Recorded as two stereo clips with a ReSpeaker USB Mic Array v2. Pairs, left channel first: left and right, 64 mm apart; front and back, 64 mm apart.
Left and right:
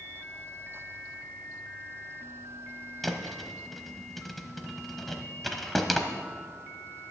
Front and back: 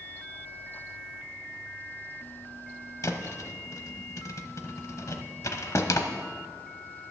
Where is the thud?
Straight ahead, 0.9 m.